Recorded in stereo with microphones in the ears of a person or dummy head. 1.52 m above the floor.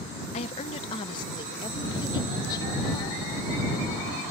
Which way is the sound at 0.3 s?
35° left (ahead or behind).